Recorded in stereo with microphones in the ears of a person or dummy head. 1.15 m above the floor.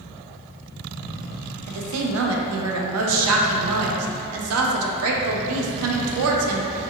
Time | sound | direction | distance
1.7 | a woman speaking | 75° right (ahead or behind) | 0.6 m